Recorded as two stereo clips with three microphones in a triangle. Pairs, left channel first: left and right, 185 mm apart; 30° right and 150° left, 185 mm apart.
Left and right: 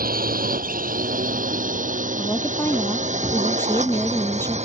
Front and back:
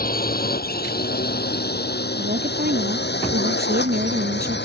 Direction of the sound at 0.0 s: 60° right.